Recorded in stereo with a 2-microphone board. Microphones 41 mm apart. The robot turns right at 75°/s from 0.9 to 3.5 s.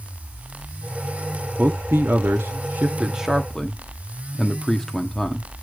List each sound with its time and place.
1.6 s a man speaking: 40° right (ahead or behind), 1.1 m; by 5.5 s 5° left (ahead or behind), 1.1 m